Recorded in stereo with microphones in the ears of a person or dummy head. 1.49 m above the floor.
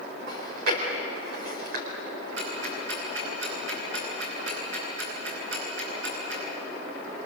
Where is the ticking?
80° right, 8.5 m.